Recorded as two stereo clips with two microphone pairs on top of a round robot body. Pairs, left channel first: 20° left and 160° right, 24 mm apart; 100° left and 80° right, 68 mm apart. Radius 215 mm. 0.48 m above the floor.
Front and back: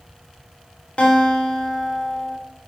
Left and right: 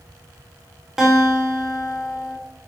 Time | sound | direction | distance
1.0 | a guitar | straight ahead | 3 m